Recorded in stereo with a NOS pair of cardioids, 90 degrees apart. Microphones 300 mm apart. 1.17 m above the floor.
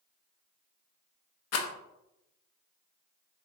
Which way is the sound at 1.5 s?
55° left.